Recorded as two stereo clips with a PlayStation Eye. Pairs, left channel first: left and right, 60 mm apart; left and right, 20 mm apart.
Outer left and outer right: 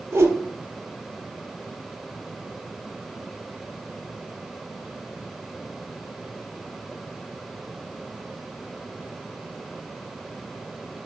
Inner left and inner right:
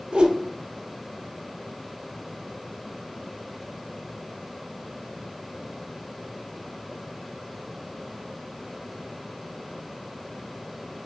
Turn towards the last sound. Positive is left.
turn(degrees=-50)  # may be behind; listen again after turning